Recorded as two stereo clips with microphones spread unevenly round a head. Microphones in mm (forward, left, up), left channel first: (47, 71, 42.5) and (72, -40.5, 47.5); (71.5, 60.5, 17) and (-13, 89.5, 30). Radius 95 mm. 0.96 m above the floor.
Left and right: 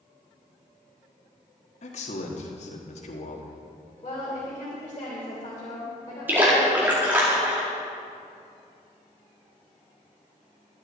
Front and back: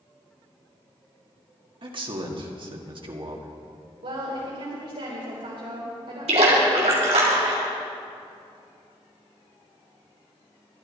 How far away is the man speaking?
About 1.7 m.